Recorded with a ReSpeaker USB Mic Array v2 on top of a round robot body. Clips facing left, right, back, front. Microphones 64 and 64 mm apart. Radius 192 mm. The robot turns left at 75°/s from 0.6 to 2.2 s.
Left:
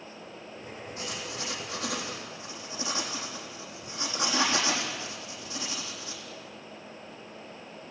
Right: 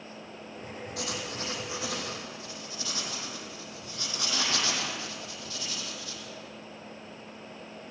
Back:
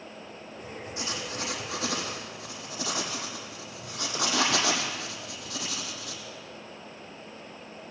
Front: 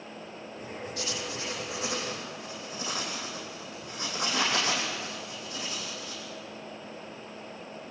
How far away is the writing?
About 4 m.